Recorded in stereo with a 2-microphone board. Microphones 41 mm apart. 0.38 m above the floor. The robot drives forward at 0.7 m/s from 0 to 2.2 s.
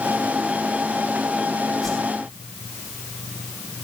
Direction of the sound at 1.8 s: 5° left (ahead or behind).